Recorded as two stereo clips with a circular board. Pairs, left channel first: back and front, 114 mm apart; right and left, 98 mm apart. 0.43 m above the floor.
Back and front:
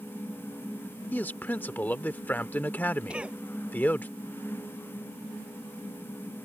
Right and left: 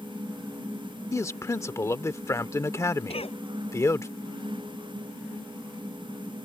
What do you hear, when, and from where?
1.1 s a man speaking: 115° right
3.1 s a cough: 80° right